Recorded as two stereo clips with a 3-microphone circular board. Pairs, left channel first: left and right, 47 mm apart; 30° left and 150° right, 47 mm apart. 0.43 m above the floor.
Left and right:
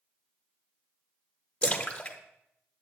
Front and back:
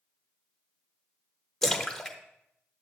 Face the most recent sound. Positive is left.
turn(degrees=95)